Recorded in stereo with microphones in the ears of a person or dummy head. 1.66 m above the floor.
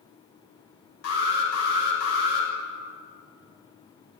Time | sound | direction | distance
1.0 | an alarm | 80° left | 7 m